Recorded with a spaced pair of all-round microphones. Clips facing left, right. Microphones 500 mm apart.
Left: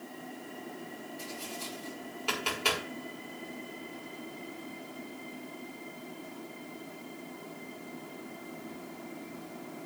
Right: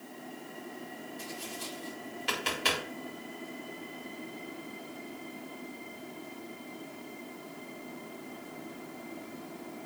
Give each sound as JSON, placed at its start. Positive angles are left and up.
{"t": 1.2, "sound": "tapping", "side_deg": -35, "distance_m": 5.5}